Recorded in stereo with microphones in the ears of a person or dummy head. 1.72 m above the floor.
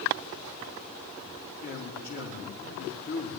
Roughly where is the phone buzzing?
No phone buzzing in this recording.